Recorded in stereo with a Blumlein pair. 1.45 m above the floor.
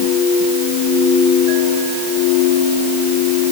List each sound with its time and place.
Only background noise.